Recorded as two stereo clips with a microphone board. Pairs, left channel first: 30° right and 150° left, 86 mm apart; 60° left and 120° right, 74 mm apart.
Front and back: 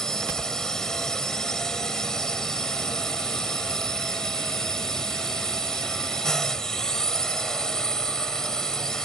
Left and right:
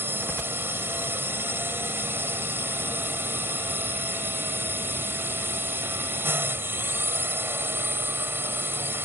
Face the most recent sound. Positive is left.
turn(degrees=-105)